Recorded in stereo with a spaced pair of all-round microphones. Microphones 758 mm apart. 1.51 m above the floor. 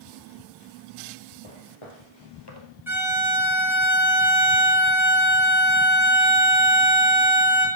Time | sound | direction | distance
1.4 | footsteps | 40° left (ahead or behind) | 2 m
2.9 | a violin | 5° right (ahead or behind) | 2.5 m